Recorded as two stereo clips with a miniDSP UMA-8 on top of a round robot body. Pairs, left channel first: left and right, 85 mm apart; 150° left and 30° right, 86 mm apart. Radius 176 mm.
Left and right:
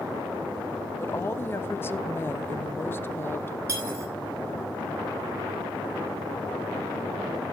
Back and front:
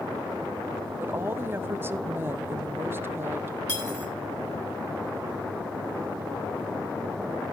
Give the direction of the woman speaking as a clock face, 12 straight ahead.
11 o'clock.